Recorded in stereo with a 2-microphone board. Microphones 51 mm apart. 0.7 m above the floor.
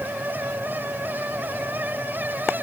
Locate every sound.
Only background noise.